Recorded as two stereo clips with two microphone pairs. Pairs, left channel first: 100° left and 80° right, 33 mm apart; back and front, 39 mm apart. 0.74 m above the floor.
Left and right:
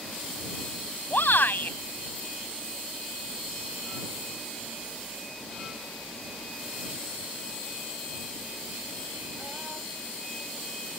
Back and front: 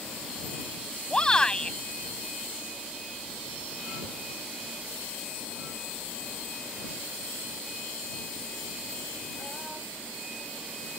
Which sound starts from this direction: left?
A shout, at 1.1 s.